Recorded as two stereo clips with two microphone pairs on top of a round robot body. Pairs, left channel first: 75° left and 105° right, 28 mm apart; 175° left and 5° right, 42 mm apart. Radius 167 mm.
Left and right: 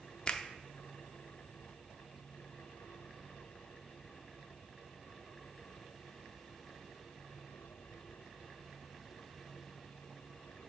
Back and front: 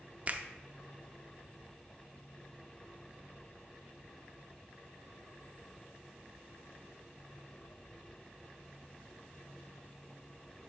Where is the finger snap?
50° left, 0.7 m.